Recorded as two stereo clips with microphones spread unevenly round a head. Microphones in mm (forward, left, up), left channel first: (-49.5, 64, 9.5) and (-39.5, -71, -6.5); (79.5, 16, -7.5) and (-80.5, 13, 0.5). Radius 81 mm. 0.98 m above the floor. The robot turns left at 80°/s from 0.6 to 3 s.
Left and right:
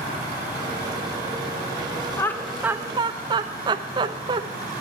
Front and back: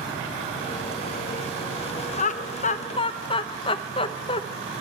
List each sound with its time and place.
2.2 s laughter: 20° left, 0.6 m; by 4.4 s 45° right, 0.6 m